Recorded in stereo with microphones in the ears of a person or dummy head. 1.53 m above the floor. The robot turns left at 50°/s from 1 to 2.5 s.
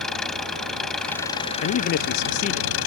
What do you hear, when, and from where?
0.0 s an engine running: straight behind; by 2.9 s 105° left
1.6 s a man speaking: 95° left; by 2.7 s 50° left